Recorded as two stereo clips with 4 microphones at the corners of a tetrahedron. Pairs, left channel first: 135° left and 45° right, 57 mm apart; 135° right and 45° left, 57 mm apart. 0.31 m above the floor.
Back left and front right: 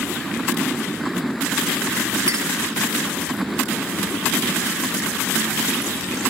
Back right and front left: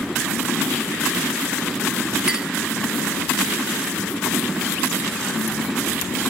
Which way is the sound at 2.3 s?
30° right.